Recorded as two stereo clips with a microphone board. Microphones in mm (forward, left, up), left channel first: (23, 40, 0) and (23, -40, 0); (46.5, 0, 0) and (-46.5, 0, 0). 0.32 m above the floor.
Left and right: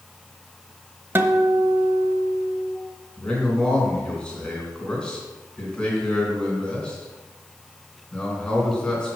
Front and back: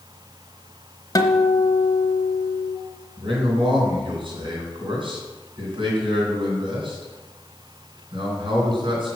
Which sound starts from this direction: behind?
A man speaking, at 3.2 s.